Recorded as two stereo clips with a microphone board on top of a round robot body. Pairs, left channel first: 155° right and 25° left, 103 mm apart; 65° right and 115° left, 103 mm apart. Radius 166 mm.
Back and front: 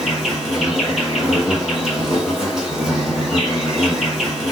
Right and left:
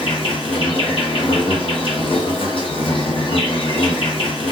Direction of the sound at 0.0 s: 65° right.